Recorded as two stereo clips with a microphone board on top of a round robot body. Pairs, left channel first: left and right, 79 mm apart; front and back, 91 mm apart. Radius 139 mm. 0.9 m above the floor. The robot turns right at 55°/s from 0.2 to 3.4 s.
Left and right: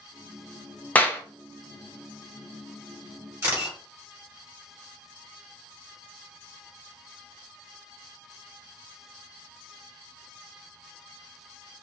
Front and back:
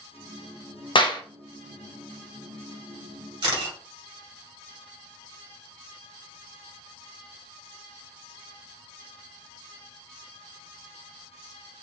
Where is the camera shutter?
150° right, 2 m.